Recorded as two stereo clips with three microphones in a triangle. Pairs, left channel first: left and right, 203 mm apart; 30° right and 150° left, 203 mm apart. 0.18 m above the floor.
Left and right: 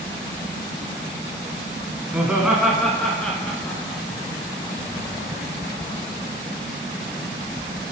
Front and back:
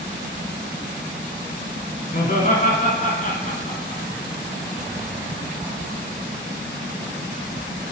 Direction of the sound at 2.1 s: 10° right.